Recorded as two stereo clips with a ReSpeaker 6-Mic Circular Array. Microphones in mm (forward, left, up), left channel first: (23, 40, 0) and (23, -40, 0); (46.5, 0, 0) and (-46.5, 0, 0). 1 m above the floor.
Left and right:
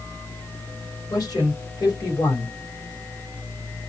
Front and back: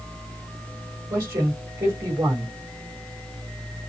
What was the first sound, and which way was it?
A man speaking, 130° left.